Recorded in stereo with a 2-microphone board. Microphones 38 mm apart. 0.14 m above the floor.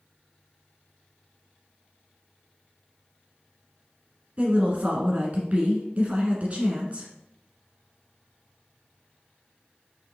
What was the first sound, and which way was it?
A woman speaking, 35° right (ahead or behind).